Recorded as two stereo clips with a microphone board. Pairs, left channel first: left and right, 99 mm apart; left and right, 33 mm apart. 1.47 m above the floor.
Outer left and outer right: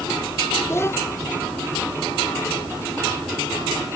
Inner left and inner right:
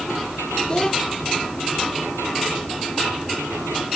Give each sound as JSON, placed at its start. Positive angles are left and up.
{"t": 0.7, "sound": "a child speaking", "side_deg": 30}